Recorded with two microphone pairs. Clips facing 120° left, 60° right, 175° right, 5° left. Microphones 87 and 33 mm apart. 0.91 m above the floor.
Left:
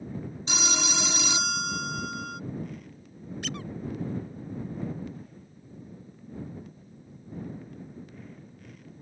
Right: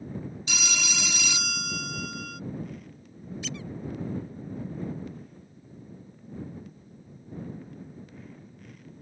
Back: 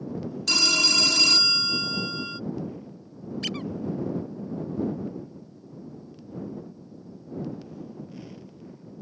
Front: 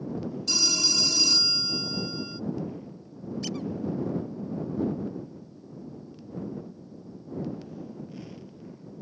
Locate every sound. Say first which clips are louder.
0.5 s a phone ringing: left 5 dB, back 5 dB; 175° left
3.4 s a squeak: left 2 dB, back 2 dB; 150° left